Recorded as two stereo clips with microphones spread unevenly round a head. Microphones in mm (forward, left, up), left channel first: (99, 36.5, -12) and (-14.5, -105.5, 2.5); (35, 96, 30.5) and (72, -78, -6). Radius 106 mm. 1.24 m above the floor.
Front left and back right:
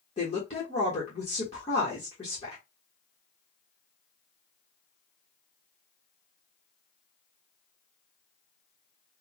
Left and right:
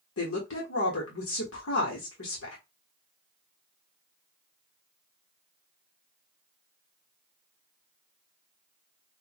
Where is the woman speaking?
115° left, 1.3 m.